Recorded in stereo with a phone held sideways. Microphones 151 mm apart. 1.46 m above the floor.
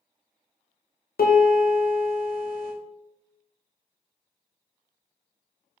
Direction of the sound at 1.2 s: 70° left (ahead or behind).